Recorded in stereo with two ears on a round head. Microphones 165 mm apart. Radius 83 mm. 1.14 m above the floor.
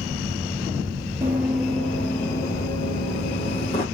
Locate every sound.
1.2 s running footsteps: 10° right (ahead or behind), 1.2 m; by 3.9 s 30° left (ahead or behind), 2.5 m